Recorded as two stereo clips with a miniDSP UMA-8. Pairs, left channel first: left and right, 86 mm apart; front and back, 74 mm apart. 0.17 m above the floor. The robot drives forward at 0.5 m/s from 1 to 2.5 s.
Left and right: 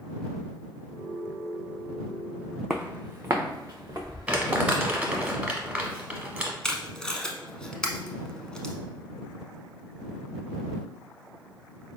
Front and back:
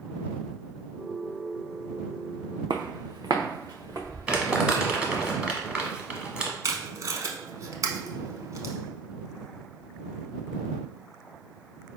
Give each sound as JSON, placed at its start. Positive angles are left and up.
{"t": 2.7, "sound": "footsteps", "azimuth_deg": -175, "distance_m": 0.5}
{"t": 4.3, "sound": "crumpling", "azimuth_deg": -135, "distance_m": 0.8}
{"t": 6.6, "sound": "tape being pulled", "azimuth_deg": 170, "distance_m": 0.6}